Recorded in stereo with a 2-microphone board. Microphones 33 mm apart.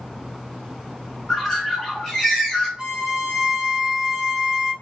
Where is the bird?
10° left (ahead or behind), 1.7 m.